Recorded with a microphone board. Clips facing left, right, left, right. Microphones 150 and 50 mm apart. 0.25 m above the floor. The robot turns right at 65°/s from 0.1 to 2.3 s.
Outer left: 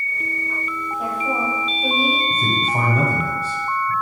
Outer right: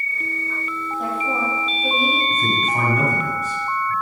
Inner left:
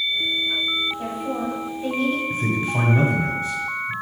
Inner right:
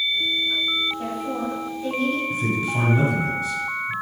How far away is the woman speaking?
About 1.8 m.